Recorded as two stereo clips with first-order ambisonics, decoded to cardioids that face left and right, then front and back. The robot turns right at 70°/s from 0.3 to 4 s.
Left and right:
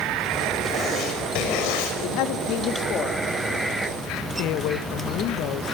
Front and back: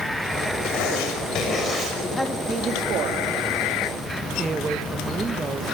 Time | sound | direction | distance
0.6 | writing | straight ahead | 6 m
2.0 | a man speaking | 70° left | 2 m
4.4 | a woman speaking | 105° left | 1.3 m